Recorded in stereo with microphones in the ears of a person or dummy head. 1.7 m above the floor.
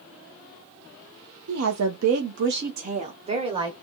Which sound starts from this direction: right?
A woman speaking, at 1.5 s.